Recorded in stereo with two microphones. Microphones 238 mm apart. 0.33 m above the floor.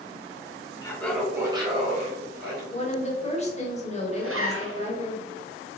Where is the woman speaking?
30° left (ahead or behind), 0.9 m.